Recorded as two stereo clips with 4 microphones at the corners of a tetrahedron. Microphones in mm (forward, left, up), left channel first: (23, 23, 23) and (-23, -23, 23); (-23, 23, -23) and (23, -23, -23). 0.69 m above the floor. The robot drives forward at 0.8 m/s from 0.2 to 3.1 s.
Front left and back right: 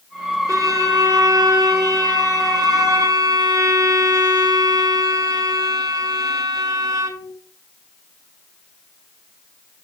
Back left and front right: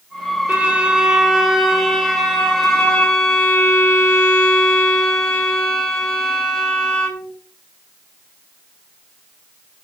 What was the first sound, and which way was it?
A violin, 110° right.